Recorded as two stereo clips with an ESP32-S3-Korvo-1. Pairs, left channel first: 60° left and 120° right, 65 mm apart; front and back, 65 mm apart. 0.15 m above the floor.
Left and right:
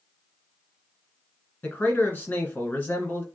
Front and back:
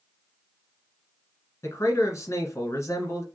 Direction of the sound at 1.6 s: 5° left.